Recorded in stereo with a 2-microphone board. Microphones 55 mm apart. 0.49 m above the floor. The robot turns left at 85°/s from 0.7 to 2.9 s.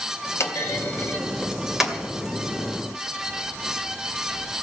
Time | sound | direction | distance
0.4 | a clunk | 60° left (ahead or behind) | 2 m